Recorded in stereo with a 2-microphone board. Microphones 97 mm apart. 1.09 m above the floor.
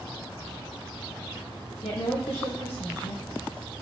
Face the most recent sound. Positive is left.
turn(degrees=80)